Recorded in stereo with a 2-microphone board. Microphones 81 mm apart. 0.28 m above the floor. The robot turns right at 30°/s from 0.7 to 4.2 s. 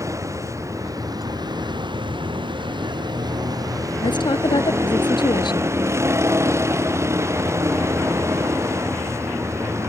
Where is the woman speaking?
75° left (ahead or behind).